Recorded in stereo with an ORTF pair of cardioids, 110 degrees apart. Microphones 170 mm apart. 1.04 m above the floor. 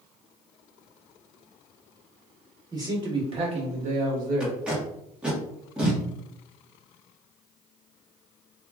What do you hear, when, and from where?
2.7 s a man speaking: 25° right, 1.6 m; by 4.6 s 70° right, 1.4 m
4.4 s tape being pulled: 5° right, 1.2 m